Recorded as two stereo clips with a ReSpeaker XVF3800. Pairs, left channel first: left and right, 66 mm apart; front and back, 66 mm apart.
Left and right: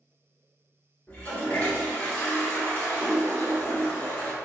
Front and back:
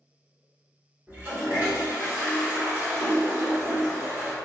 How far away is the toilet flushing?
About 1.4 m.